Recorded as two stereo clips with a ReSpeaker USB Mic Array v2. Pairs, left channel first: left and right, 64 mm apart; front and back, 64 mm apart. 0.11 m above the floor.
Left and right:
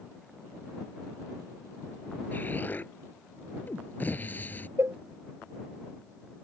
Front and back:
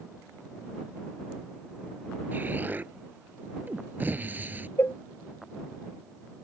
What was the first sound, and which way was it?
An explosion, 135° left.